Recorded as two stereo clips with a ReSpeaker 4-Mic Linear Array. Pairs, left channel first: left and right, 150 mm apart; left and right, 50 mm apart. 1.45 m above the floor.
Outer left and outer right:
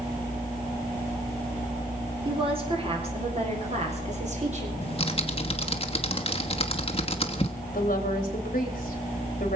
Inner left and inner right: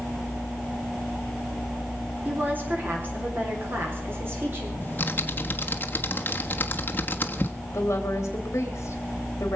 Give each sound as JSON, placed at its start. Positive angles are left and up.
{"t": 2.2, "sound": "a woman speaking", "side_deg": -35, "distance_m": 3.5}
{"t": 4.8, "sound": "typing on a keyboard", "side_deg": 40, "distance_m": 1.1}
{"t": 7.7, "sound": "a woman speaking", "side_deg": 60, "distance_m": 3.0}